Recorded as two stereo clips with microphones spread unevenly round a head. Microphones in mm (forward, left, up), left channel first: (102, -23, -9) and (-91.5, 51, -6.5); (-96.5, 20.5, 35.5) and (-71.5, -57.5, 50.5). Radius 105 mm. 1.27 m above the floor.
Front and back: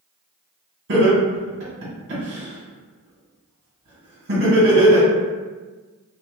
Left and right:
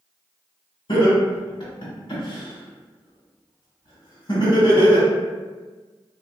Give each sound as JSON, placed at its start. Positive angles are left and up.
{"t": 0.9, "sound": "laughter", "azimuth_deg": 125, "distance_m": 1.6}